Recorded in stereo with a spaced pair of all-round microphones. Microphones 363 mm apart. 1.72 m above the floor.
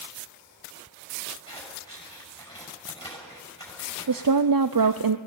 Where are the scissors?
10° left (ahead or behind), 7 m.